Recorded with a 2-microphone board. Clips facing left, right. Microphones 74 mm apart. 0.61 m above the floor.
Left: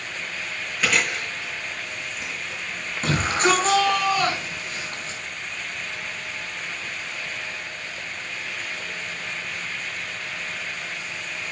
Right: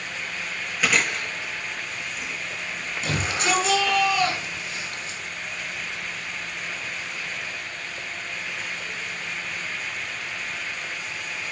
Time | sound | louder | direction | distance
0.8 | chewing | even | 5° right (ahead or behind) | 7 m
3.0 | a shout | left 5 dB | 40° left (ahead or behind) | 5.5 m